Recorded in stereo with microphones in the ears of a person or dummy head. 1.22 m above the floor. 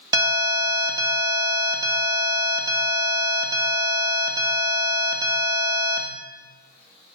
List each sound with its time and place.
0.1 s an alarm: 20° right (ahead or behind), 1.6 m